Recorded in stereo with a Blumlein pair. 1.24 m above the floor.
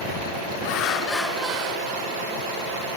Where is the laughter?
45° left, 1.1 m; by 2.9 s 70° right, 2.0 m.